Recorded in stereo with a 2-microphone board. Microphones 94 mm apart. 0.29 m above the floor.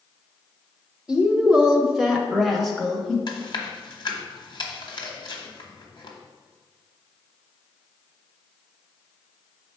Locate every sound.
1.1 s a woman speaking: 10° right (ahead or behind), 1.0 m; by 3.2 s 5° left (ahead or behind), 1.2 m
3.3 s chewing: 50° left (ahead or behind), 1.3 m